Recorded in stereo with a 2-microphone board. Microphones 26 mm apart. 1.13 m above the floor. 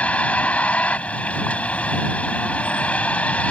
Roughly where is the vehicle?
Left.